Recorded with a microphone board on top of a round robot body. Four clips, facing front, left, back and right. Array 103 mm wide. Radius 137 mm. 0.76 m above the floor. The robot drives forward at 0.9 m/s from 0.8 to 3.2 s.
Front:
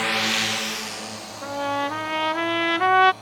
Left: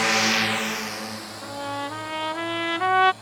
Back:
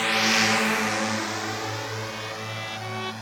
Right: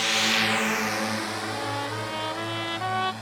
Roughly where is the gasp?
No gasp in this recording.